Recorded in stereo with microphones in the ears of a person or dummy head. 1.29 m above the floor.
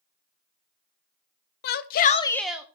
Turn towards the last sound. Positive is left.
turn(degrees=-10)  # may be behind; listen again after turning